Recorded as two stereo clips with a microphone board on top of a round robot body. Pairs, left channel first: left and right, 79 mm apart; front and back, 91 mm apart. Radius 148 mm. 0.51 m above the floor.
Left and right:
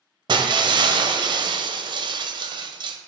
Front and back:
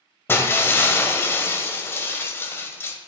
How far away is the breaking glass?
About 1.4 m.